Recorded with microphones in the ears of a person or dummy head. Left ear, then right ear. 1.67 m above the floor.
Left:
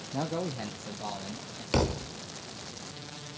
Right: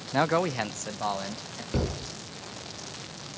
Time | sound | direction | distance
0.1 | a man speaking | 55° right (ahead or behind) | 0.6 m
1.7 | a thud | 35° left (ahead or behind) | 1.6 m